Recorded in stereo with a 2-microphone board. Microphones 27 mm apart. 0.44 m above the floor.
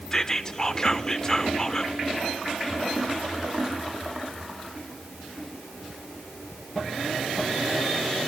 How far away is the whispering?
About 0.9 m.